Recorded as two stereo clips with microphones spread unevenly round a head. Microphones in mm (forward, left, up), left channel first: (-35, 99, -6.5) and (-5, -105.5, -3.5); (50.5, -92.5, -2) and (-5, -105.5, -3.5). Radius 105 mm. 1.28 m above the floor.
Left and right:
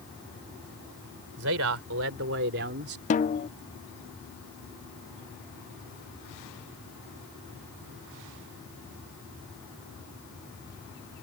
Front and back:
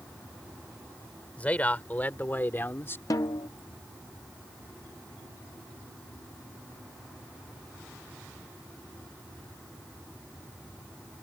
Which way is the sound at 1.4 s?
55° right.